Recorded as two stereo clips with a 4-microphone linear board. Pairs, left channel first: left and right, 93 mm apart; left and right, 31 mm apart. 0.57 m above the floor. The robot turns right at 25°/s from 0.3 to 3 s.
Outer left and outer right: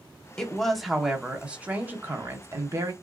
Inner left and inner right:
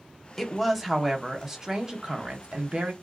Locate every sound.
0.4 s a woman speaking: 170° left, 0.8 m; by 2.9 s 125° right, 0.8 m